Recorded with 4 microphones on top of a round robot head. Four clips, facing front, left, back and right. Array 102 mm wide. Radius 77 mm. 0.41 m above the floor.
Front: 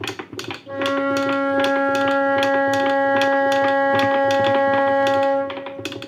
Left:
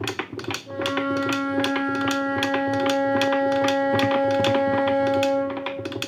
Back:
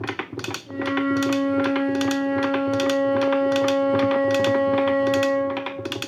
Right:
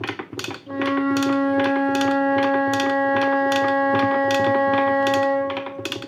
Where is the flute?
Straight ahead, 2 m.